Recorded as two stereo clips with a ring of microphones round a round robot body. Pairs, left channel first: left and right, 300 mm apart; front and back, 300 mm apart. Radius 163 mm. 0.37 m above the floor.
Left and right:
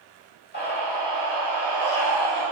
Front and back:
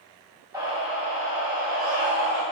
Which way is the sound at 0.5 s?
110° left.